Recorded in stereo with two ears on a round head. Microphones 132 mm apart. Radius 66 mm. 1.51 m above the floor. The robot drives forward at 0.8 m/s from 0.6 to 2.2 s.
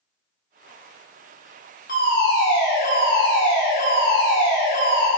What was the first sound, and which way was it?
A fire alarm, 60° left (ahead or behind).